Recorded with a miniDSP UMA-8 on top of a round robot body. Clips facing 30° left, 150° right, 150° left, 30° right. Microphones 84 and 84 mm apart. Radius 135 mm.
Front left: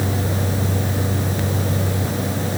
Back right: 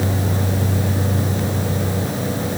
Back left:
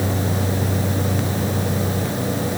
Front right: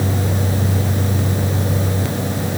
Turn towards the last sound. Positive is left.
No sound to turn to.